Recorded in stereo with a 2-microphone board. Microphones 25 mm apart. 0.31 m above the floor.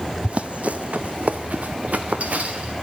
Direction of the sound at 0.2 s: 55° right (ahead or behind).